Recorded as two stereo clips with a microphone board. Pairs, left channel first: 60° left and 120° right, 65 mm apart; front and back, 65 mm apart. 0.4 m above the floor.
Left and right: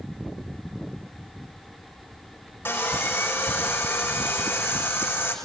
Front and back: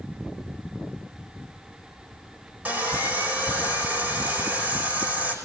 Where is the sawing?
115° left, 5 m.